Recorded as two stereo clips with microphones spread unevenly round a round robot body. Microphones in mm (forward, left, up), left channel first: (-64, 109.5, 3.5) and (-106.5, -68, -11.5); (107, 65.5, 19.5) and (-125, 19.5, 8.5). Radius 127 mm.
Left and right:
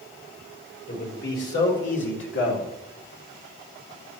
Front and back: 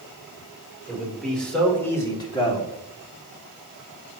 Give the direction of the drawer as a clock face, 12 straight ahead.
No drawer in this recording.